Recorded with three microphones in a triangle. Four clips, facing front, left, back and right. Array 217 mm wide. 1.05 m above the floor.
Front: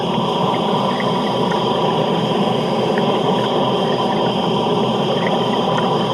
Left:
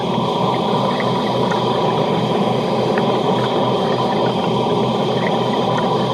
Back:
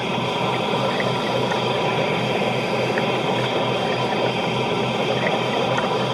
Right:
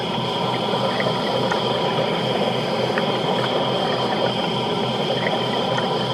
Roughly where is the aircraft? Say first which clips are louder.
Left 6 dB, front 5 dB; ahead left.